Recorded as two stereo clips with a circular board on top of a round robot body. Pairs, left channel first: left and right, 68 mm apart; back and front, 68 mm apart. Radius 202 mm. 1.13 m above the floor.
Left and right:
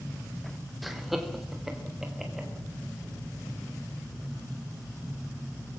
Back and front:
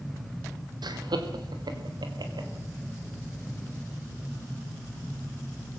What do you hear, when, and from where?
0.8 s laughter: straight ahead, 3 m; by 2.5 s 5° right, 5.5 m